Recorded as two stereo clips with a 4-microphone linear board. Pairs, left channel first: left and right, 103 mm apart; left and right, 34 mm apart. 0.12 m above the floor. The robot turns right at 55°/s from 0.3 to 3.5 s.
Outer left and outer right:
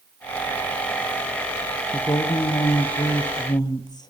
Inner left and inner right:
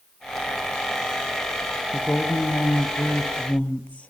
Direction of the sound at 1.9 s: 45° left.